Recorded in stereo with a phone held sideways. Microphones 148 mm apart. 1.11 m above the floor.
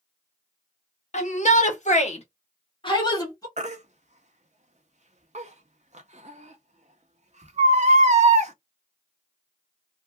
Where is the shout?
50° left (ahead or behind), 1.1 m; by 3.5 s 25° left (ahead or behind), 1.3 m.